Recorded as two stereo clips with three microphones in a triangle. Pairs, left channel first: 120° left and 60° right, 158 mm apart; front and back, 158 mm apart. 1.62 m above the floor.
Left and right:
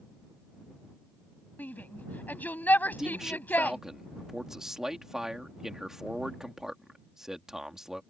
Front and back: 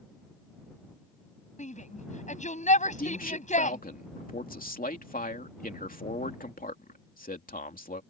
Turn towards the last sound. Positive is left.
turn(degrees=25)